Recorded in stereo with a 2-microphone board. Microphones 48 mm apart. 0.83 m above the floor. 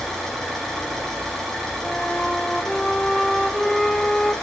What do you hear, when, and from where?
0.0 s an engine running: 5° left (ahead or behind), 4.5 m
1.8 s a flute: 10° left (ahead or behind), 0.9 m